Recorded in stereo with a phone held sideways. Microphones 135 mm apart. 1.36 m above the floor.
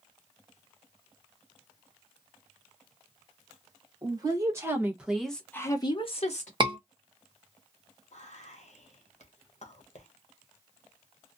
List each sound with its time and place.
4.0 s a woman speaking: 30° right (ahead or behind), 1.5 m; by 6.5 s 60° left (ahead or behind), 0.9 m
6.6 s a scream: 35° right (ahead or behind), 1.2 m
8.1 s whispering: 60° left (ahead or behind), 1.0 m